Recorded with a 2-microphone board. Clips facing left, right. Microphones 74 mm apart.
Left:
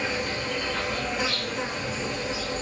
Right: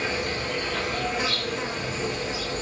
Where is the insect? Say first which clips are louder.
Right 1 dB; 25° right (ahead or behind), 2.5 m.